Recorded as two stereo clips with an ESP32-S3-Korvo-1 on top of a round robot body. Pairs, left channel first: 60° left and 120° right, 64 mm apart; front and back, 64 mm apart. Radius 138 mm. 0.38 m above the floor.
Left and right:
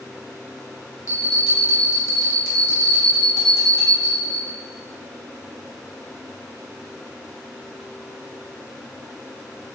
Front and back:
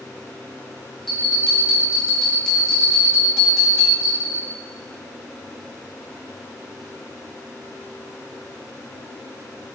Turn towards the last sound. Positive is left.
turn(degrees=80)